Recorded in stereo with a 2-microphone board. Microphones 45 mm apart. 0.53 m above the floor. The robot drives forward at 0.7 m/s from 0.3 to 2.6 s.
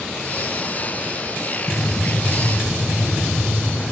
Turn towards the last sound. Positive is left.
turn(degrees=-70)  # may be behind; listen again after turning